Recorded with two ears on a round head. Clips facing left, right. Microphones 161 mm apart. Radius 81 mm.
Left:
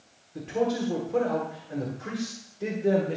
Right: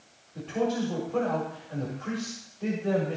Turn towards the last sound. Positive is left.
turn(degrees=35)  # may be behind; listen again after turning